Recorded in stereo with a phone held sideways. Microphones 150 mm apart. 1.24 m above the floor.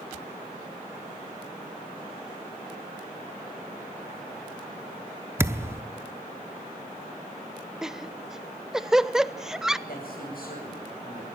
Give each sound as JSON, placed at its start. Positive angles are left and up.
{"t": 5.4, "sound": "a thud", "side_deg": -15, "distance_m": 0.8}
{"t": 7.8, "sound": "laughter", "side_deg": -5, "distance_m": 0.7}
{"t": 9.9, "sound": "a man speaking", "side_deg": 80, "distance_m": 8.5}